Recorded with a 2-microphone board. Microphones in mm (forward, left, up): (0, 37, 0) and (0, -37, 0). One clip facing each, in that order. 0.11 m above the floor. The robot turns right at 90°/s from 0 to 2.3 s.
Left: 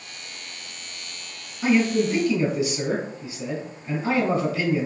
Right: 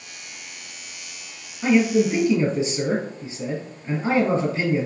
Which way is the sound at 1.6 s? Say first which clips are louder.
Right 2 dB; 170° left.